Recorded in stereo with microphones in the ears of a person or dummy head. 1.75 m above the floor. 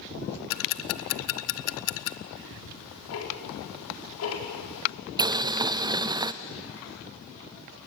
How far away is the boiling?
About 0.5 m.